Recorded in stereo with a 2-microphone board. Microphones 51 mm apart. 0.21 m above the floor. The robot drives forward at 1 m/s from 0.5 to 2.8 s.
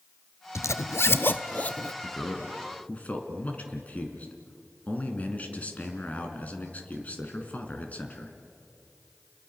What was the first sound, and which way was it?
A zipper, 80° left.